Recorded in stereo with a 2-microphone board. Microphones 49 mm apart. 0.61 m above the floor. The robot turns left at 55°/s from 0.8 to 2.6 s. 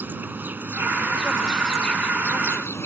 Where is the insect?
140° right; by 2.9 s 120° left.